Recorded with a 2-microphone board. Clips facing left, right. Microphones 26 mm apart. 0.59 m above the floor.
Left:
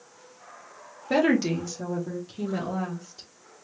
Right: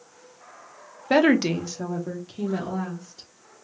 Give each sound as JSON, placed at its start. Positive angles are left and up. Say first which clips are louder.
{"t": 1.1, "sound": "a woman speaking", "louder": "right 3 dB", "side_deg": -35, "distance_m": 0.8}